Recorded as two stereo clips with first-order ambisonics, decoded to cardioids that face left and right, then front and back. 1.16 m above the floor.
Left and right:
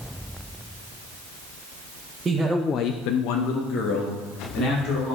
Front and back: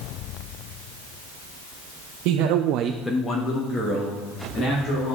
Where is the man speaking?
160° right, 1.0 m; by 5.2 s 45° left, 3.5 m.